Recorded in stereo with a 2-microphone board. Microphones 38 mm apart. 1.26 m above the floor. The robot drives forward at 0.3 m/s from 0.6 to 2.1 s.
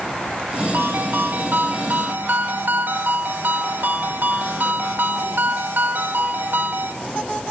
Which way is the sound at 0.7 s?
60° right (ahead or behind).